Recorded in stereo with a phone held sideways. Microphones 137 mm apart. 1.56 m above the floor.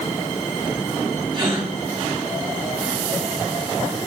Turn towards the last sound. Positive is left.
turn(degrees=-40)  # may be behind; listen again after turning